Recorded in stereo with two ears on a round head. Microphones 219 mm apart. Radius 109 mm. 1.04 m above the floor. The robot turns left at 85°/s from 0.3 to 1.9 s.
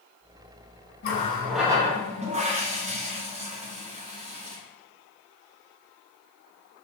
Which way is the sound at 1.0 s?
45° left.